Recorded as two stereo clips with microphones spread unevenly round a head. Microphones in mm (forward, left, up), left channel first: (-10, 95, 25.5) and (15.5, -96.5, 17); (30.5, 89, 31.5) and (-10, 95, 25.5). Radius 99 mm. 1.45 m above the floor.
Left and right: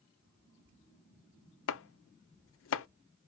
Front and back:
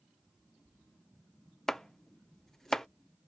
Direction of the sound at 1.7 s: 75° left.